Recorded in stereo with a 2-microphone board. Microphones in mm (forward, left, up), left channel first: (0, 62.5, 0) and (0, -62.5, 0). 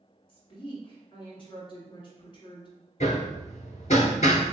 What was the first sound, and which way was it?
A woman speaking, 45° left (ahead or behind).